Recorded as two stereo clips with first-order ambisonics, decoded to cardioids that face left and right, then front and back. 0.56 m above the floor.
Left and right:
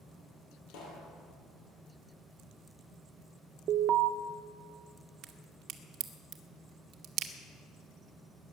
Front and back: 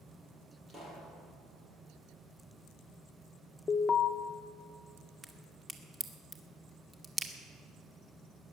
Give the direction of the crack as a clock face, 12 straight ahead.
4 o'clock.